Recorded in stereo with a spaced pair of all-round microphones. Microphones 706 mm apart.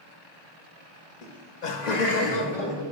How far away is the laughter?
About 1.2 m.